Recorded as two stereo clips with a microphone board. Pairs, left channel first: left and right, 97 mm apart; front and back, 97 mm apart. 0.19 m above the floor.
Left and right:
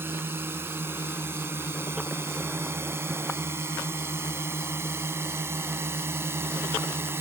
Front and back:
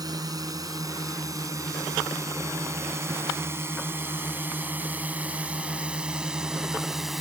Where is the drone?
150° right; by 7.2 s 95° right.